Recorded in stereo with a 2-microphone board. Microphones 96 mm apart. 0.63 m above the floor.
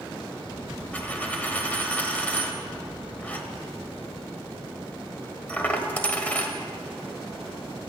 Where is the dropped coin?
15° left (ahead or behind), 1.3 m.